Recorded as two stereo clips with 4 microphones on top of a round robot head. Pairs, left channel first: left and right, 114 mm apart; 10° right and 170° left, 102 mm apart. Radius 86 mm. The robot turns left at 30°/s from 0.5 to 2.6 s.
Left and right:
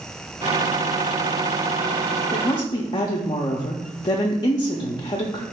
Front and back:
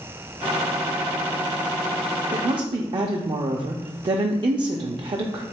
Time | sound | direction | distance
2.3 | a woman speaking | 140° left | 0.5 m